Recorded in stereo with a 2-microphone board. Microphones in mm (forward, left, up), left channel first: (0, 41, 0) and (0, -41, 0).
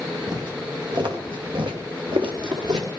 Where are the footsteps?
60° right (ahead or behind), 4.5 m.